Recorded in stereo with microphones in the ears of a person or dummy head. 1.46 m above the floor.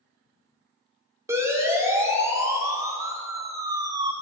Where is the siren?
15° right (ahead or behind), 3.5 m; by 4.1 s 20° right (ahead or behind), 2 m.